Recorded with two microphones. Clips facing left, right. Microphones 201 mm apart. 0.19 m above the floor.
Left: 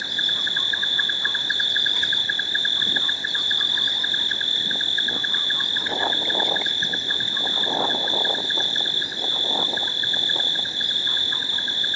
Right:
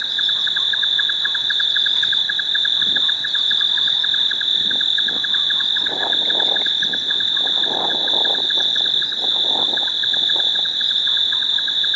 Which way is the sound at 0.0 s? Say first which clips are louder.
Left 3 dB; 20° left (ahead or behind).